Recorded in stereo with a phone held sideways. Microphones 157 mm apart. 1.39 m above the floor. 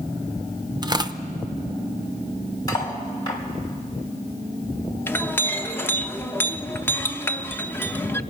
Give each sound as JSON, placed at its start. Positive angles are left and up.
{"t": 0.8, "sound": "tearing paper", "side_deg": -30, "distance_m": 0.6}
{"t": 2.7, "sound": "cutlery clinking", "side_deg": 25, "distance_m": 3.0}
{"t": 5.1, "sound": "a clink", "side_deg": 15, "distance_m": 0.6}